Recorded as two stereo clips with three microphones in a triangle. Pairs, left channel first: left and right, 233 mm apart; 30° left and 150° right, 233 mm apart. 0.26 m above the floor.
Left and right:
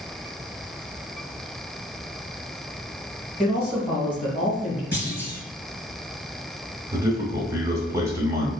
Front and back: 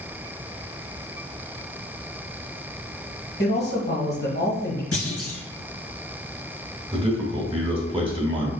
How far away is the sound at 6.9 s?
About 1.1 m.